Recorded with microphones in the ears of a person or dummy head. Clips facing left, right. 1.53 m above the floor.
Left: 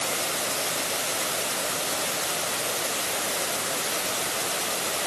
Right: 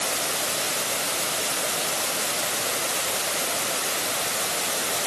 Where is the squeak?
No squeak in this recording.